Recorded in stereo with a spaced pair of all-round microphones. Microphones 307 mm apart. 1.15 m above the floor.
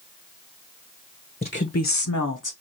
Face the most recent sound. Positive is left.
turn(degrees=80)